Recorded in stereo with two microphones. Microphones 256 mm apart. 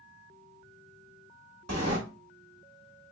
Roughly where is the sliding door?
Right.